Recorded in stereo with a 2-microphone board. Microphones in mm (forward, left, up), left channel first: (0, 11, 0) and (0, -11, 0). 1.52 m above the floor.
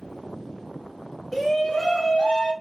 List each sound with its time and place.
1.3 s a shout: 10° left (ahead or behind), 1.0 m; by 2.5 s 60° left (ahead or behind), 2 m